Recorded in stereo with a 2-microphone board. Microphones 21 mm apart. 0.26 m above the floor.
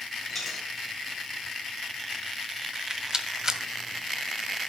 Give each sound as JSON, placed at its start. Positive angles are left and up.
{"t": 0.3, "sound": "a dropped coin", "side_deg": 0, "distance_m": 6.5}
{"t": 2.7, "sound": "a rattle", "side_deg": -30, "distance_m": 1.4}